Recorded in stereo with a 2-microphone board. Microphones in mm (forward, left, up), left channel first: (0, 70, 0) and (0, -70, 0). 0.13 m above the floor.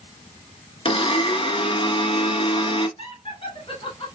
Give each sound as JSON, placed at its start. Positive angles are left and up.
{"t": 0.8, "sound": "a blender", "side_deg": 40, "distance_m": 1.0}
{"t": 3.0, "sound": "laughter", "side_deg": 40, "distance_m": 1.3}